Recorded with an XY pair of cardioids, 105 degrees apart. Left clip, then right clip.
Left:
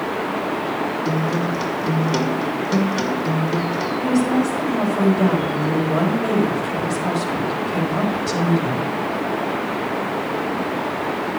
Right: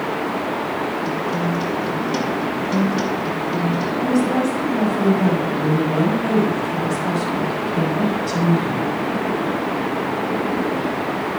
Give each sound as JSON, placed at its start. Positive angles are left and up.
{"t": 1.1, "sound": "a guitar", "azimuth_deg": 45, "distance_m": 2.0}
{"t": 4.0, "sound": "a woman speaking", "azimuth_deg": 50, "distance_m": 4.5}